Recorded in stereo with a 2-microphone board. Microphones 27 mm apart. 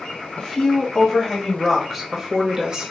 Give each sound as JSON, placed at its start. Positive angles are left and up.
{"t": 0.4, "sound": "a woman speaking", "side_deg": 25, "distance_m": 1.7}